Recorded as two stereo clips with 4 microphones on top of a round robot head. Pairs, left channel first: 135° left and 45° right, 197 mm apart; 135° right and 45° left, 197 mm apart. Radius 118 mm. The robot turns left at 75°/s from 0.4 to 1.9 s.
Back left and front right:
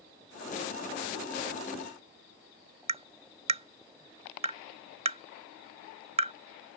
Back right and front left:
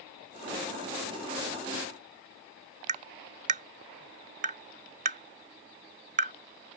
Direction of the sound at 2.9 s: 5° left.